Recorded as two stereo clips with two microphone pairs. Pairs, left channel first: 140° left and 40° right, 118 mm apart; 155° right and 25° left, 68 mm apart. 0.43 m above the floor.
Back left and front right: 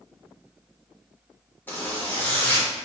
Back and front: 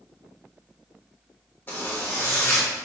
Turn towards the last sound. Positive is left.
turn(degrees=-165)